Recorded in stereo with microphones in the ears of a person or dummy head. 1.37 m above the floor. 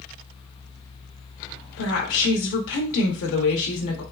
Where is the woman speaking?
65° left (ahead or behind), 0.8 m.